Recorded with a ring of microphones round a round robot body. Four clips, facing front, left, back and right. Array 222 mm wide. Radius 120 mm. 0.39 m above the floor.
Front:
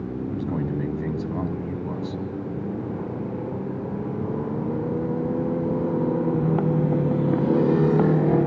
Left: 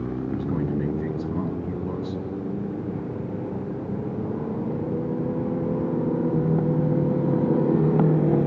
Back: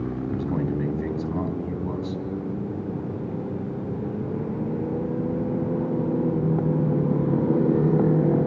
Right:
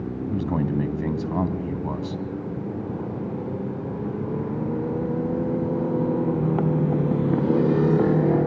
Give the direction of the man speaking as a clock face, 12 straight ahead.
3 o'clock.